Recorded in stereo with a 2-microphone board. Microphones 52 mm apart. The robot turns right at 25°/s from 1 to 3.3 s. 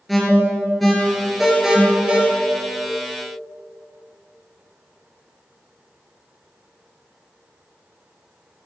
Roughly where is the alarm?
Centre.